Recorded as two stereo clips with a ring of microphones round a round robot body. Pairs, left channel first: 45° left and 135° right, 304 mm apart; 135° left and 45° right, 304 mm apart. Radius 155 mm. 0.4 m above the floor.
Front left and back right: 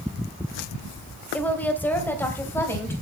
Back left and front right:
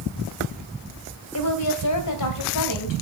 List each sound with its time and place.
1.3 s a woman speaking: 130° left, 2.0 m; by 2.9 s 125° left, 3.5 m